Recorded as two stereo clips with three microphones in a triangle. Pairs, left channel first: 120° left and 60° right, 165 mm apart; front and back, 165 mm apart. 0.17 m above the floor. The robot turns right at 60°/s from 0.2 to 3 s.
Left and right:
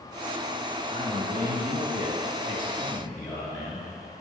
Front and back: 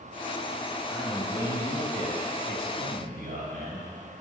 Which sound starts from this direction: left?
A man speaking, at 0.9 s.